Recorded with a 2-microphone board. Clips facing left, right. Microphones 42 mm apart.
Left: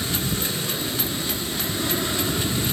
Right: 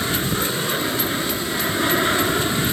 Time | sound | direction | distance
0.0 | an aircraft | 50° right (ahead or behind) | ?